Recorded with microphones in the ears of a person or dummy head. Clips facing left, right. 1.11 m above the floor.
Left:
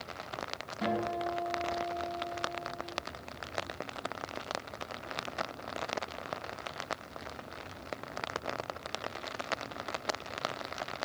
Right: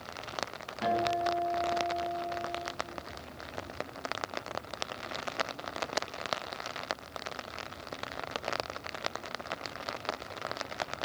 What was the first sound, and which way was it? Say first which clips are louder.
A guitar: right 3 dB; 35° left (ahead or behind).